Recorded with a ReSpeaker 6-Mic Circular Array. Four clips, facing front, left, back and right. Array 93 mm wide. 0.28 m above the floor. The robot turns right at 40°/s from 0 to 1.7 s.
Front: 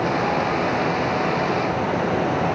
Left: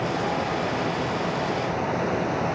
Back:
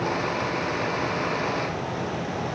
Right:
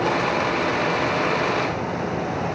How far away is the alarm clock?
No alarm clock in this recording.